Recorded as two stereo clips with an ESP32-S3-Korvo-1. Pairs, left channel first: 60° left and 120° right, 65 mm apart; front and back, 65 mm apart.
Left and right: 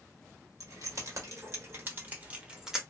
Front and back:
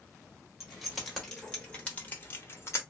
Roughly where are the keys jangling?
Right.